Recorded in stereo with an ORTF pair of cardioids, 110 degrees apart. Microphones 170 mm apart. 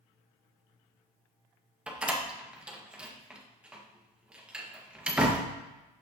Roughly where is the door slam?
Ahead.